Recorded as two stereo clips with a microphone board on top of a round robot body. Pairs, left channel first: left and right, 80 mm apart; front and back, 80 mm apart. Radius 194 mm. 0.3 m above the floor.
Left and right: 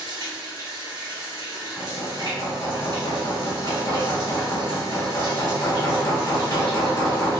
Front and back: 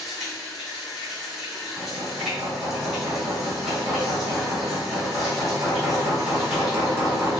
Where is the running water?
95° right, 1.4 m.